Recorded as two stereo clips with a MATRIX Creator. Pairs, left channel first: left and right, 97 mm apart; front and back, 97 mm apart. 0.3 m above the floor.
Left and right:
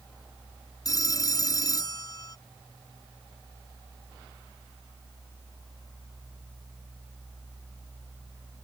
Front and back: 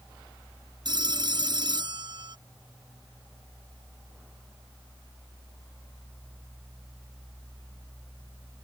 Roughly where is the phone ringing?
Behind left.